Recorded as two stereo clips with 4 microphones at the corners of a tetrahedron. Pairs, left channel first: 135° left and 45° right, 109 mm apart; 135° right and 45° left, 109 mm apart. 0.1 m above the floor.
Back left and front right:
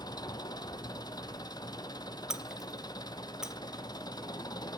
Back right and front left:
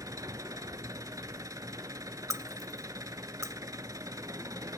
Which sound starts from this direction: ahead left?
Breaking glass, at 2.3 s.